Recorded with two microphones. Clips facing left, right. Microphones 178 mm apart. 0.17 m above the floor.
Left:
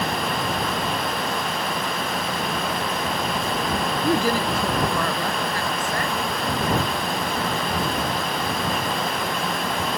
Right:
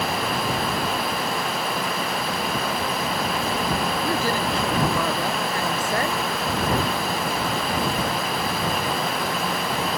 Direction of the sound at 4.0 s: 25° left (ahead or behind).